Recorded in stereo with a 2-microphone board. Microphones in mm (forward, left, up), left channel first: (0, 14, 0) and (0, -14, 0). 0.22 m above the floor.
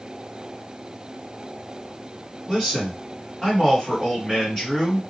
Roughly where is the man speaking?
Left.